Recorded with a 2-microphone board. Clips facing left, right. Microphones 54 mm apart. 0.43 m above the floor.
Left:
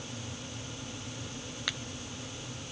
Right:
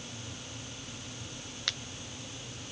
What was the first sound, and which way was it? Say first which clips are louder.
A finger snap: left 1 dB; 10° left (ahead or behind).